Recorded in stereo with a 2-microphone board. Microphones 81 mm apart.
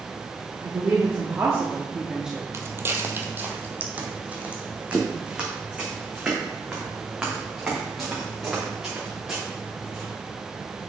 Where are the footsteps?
35° right (ahead or behind), 0.9 m; by 10.1 s 10° right (ahead or behind), 5 m.